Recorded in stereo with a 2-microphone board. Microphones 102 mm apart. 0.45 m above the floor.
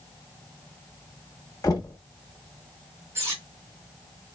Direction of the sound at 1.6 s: 35° left (ahead or behind).